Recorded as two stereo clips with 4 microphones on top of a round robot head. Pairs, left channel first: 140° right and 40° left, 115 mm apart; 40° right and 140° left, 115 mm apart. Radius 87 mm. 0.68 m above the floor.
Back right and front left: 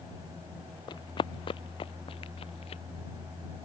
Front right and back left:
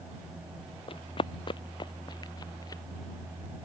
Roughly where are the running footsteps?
Right.